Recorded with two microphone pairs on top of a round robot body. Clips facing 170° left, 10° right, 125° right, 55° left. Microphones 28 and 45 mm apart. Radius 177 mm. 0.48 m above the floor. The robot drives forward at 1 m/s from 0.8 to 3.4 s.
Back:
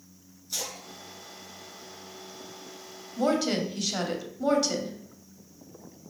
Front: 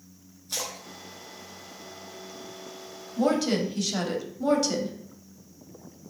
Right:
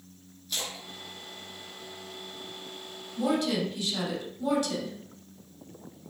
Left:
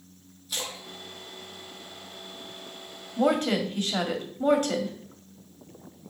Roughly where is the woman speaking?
Left.